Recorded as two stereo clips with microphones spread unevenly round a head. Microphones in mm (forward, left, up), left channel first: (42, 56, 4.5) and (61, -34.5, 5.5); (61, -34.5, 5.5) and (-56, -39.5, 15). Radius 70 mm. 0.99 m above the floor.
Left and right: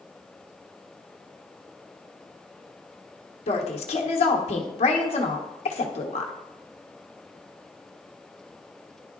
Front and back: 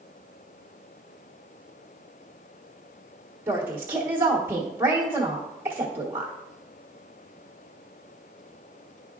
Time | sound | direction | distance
3.5 | a woman speaking | 105° left | 1.1 m